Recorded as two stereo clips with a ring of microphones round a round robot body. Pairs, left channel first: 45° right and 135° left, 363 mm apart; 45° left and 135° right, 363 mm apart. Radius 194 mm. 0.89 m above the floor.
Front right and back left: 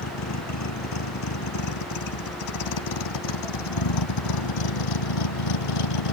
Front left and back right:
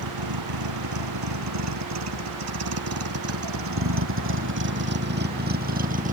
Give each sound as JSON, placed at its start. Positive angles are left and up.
{"t": 0.0, "sound": "a vehicle", "azimuth_deg": -95}